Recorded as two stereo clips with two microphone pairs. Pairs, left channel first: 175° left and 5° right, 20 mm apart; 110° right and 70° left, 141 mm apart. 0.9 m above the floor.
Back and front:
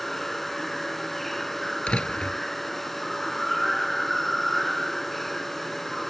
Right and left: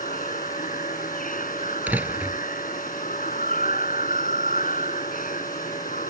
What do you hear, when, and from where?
0.0 s running water: 105° right
1.9 s a door slam: 145° left